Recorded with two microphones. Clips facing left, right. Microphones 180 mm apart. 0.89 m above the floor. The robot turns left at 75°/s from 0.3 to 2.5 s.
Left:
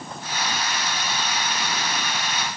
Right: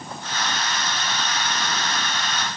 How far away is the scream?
I don't hear a scream.